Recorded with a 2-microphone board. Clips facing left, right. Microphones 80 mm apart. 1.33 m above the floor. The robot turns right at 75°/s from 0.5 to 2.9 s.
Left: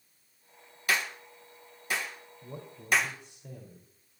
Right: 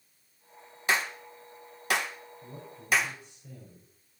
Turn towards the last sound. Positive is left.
turn(degrees=80)